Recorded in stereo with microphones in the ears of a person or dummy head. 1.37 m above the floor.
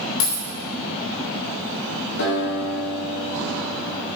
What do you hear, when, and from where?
0.2 s a dropped coin: 70° left (ahead or behind), 1.7 m
2.2 s a guitar: 75° left (ahead or behind), 4.5 m